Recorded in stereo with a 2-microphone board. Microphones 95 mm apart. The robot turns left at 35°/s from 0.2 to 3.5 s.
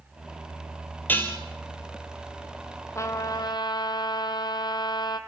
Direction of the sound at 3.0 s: 30° left (ahead or behind).